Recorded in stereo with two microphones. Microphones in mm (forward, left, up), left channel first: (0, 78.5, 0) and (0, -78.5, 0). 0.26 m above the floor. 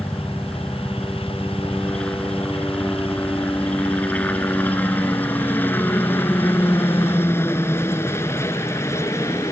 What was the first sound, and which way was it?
A helicopter, 5° left (ahead or behind).